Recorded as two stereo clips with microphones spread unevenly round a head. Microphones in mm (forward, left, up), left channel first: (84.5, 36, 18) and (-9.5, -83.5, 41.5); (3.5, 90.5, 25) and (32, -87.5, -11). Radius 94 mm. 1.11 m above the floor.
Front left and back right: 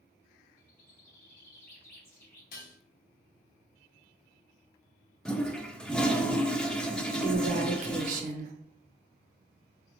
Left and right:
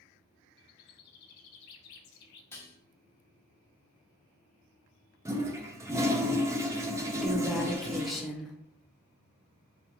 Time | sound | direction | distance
0.6 | a bird | 130° left | 0.7 m
2.5 | dishes clattering | 25° left | 0.9 m
5.2 | a toilet flushing | 25° right | 0.6 m
7.2 | a woman speaking | 160° right | 0.6 m